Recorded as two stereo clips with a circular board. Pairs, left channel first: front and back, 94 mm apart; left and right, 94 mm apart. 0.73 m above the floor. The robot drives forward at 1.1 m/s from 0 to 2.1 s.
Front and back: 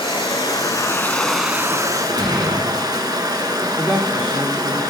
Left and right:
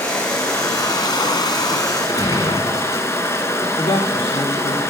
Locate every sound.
0.0 s running water: 25° left, 1.7 m; by 4.9 s 145° left, 1.2 m
2.1 s a gunshot: 135° left, 2 m
3.8 s a man speaking: 105° left, 1.5 m